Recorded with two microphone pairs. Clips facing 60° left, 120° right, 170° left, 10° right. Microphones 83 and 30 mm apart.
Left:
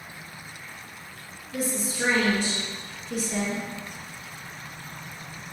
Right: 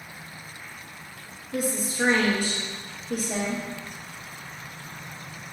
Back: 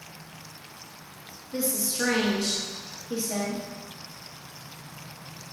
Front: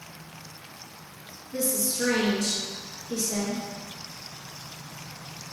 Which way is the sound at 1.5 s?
135° right.